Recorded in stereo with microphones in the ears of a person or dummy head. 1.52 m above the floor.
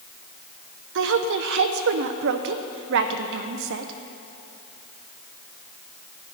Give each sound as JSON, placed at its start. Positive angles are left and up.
{"t": 0.9, "sound": "a woman speaking", "side_deg": -65, "distance_m": 0.9}